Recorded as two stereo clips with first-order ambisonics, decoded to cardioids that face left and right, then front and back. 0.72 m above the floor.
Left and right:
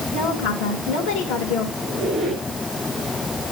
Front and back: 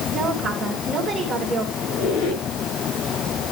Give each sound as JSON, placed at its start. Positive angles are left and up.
{"t": 0.1, "sound": "a woman speaking", "azimuth_deg": 105, "distance_m": 3.0}
{"t": 1.8, "sound": "a squeak", "azimuth_deg": -10, "distance_m": 6.5}